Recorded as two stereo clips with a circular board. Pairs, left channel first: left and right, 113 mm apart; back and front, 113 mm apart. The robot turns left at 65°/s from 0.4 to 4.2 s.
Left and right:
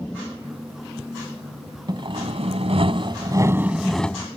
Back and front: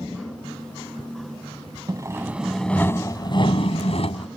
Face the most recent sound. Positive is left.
turn(degrees=160)